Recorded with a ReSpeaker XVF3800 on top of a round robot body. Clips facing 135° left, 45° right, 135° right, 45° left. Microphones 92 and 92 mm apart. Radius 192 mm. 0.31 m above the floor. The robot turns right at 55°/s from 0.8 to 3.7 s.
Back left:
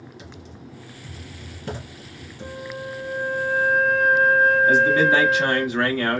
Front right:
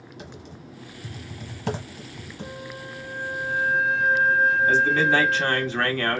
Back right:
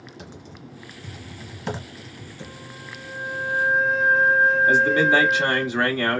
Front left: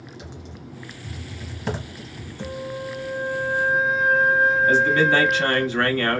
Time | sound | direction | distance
0.2 | typing on a keyboard | 90° right | 1.3 m
2.4 | a flute | 55° left | 1.6 m
4.7 | a man speaking | 170° right | 1.4 m